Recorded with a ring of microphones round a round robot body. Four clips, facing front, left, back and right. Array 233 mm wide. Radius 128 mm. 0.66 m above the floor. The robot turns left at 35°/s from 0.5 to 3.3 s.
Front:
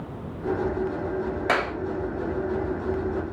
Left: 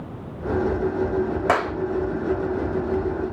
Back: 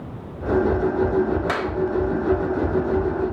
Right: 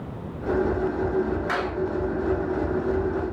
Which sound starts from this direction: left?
A clap, at 1.5 s.